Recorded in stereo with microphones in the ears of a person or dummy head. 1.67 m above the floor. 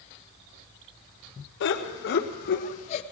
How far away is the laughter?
About 1.9 m.